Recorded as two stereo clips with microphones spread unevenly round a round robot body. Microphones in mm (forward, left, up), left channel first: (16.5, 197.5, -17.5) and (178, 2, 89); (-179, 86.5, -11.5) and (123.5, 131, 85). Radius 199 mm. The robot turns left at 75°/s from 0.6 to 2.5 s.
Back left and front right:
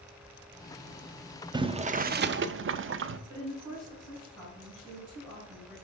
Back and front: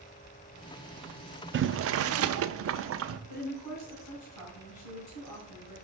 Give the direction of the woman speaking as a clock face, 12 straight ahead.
5 o'clock.